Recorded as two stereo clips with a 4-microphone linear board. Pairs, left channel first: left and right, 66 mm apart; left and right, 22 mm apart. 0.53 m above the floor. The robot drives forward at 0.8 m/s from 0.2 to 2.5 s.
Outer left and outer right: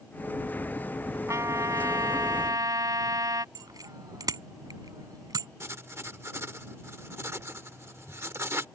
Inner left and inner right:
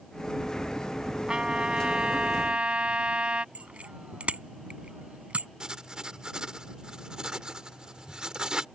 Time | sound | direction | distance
1.3 | a trumpet | 55° right (ahead or behind) | ?
3.5 | a bicycle bell | 80° right | ?
5.6 | writing | 45° right (ahead or behind) | ?